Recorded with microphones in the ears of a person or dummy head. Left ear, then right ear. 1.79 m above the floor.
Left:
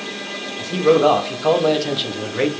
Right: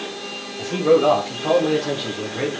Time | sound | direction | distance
0.6 | a man speaking | 15° left (ahead or behind) | 2 m